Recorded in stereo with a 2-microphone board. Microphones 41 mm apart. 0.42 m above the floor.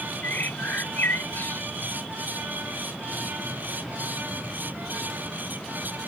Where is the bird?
60° left (ahead or behind).